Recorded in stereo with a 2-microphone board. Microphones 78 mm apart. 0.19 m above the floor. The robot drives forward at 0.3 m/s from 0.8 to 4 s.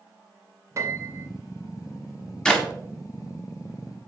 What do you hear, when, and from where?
0.8 s a piano: 40° right (ahead or behind), 0.8 m; by 1.3 s 35° right (ahead or behind), 0.9 m
2.5 s a clap: 10° left (ahead or behind), 1.1 m